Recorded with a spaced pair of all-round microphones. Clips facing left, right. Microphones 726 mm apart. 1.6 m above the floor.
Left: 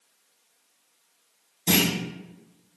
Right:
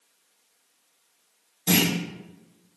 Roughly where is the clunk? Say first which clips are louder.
Right 1 dB; centre.